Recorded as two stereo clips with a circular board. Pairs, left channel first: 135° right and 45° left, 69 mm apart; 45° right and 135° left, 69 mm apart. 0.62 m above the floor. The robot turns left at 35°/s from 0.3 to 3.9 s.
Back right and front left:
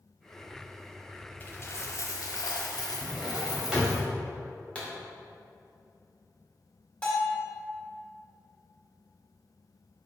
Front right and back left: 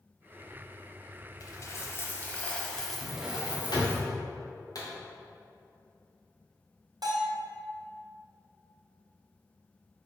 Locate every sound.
1.4 s a dropped coin: 75° right, 1.1 m; by 4.0 s 165° right, 1.1 m
3.0 s a drawer: 15° right, 2 m; by 4.0 s 45° right, 2 m
4.8 s a pop: 65° right, 1.9 m
7.0 s a bell: 155° left, 2 m